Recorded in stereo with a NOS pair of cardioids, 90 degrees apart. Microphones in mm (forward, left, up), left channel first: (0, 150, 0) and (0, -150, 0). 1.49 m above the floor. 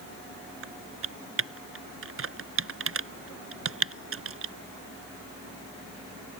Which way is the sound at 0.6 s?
45° right.